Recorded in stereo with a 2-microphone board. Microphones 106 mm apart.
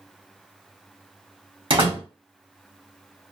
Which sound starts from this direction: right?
A door slam, at 1.7 s.